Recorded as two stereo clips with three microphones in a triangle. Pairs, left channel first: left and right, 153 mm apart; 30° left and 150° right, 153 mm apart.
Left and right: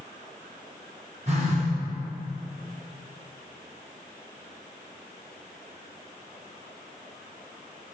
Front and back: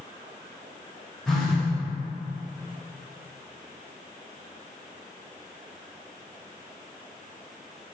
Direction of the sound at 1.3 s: 55° right.